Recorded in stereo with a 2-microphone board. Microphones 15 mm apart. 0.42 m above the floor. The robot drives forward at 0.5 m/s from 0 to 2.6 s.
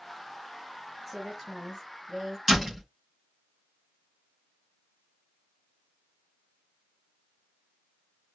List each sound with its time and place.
1.1 s a woman speaking: 5° right (ahead or behind), 2.5 m
2.5 s a door slam: 25° right (ahead or behind), 4.5 m